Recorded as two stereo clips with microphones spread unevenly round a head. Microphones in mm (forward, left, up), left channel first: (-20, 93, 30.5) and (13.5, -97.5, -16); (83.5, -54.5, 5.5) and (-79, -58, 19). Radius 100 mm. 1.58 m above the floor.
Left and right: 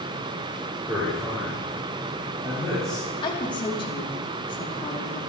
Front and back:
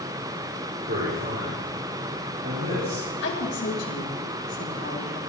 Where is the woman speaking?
30° left, 4.5 m.